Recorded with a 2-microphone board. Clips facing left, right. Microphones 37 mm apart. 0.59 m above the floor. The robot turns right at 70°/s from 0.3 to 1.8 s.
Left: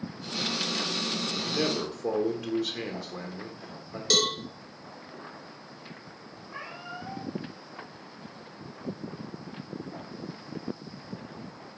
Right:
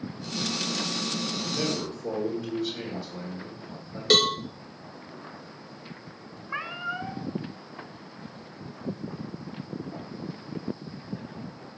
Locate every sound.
1.4 s a man speaking: 75° left, 1.2 m; by 4.0 s 105° left, 1.2 m
4.1 s a cowbell: 35° right (ahead or behind), 0.8 m
6.5 s a cat meowing: 70° right (ahead or behind), 1.7 m